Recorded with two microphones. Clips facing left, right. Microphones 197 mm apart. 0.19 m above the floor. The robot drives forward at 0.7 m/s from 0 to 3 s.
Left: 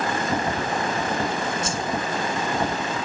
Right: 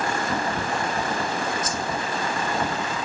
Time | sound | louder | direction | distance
1.6 | a whoosh | left 1 dB | 30° left (ahead or behind) | 0.5 m